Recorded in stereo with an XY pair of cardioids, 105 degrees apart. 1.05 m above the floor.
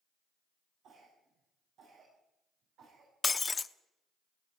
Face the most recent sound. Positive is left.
turn(degrees=25)